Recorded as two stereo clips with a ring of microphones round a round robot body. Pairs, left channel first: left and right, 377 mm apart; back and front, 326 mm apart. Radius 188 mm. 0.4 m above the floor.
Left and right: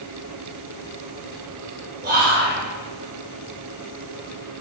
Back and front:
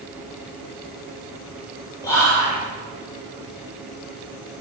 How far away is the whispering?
About 1.2 m.